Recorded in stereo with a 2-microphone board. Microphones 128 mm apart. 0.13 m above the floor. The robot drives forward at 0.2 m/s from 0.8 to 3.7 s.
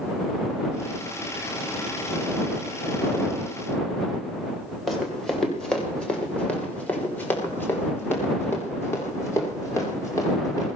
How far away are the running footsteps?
About 6.5 m.